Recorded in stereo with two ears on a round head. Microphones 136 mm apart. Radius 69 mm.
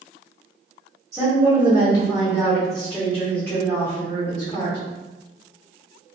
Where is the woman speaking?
20° right (ahead or behind), 1.4 m; by 4.8 s 25° left (ahead or behind), 1.9 m.